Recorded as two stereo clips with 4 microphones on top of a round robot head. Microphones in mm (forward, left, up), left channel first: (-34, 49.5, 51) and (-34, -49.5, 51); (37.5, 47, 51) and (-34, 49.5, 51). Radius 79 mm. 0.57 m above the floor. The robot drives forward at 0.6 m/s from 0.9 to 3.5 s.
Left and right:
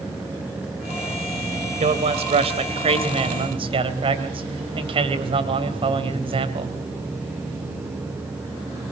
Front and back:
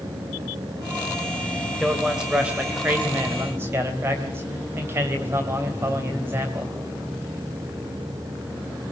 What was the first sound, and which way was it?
A man speaking, 95° right.